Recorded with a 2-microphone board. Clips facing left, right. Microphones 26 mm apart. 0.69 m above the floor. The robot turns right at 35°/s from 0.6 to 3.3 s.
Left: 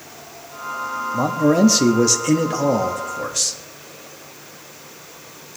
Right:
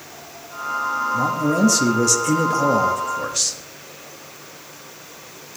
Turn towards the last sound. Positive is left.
turn(degrees=-175)